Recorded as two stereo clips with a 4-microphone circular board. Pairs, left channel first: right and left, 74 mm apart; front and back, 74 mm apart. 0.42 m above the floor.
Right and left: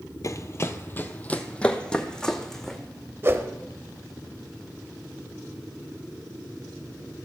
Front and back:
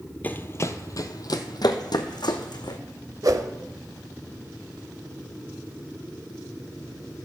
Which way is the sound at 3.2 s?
145° left.